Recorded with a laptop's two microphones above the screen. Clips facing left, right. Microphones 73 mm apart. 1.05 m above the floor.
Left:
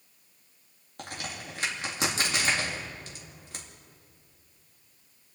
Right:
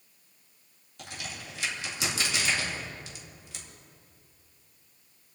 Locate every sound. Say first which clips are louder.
1.0 s a crack: left 3 dB; 50° left (ahead or behind), 2 m